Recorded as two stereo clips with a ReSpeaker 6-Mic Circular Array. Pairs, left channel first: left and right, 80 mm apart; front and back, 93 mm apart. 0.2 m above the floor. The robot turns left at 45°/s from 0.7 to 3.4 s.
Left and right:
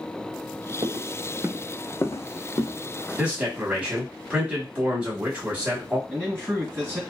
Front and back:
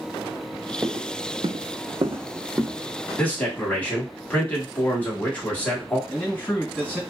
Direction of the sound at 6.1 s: 65° right.